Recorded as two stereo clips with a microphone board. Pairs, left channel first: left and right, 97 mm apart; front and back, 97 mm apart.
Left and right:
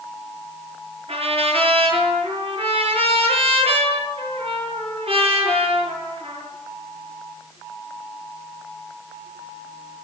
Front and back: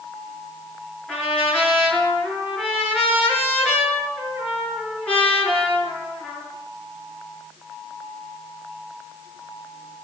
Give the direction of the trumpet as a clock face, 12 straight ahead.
3 o'clock.